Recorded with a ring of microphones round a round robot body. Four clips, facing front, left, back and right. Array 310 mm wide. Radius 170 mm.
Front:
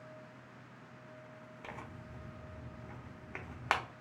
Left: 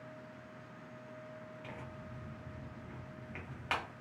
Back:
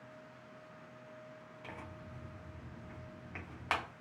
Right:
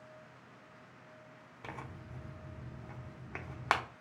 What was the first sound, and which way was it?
Tearing paper, 65° right.